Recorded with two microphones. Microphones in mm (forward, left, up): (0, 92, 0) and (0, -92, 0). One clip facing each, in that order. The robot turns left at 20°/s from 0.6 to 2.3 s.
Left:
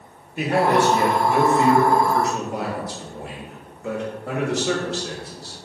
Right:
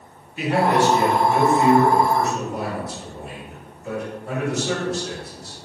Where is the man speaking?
130° left, 1.3 m; by 5.6 s 100° left, 1.3 m.